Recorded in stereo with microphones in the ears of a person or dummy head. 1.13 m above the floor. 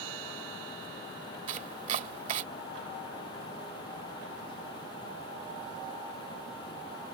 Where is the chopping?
45° right (ahead or behind).